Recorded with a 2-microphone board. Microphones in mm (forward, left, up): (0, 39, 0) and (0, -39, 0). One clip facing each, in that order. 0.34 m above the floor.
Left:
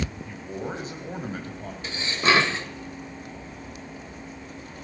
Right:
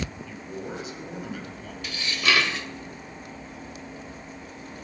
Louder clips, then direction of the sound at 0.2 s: Left 2 dB; 40° left (ahead or behind).